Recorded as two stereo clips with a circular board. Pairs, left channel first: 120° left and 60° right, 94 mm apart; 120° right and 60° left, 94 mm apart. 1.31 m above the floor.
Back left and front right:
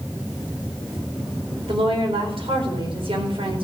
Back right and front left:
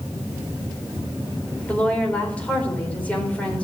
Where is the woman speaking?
45° right, 4 m.